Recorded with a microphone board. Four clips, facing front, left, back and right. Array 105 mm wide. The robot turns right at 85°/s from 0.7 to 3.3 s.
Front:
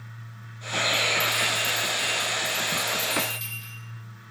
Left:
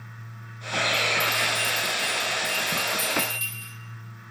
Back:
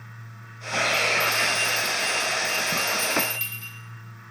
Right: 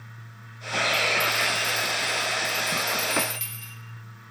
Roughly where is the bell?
Ahead.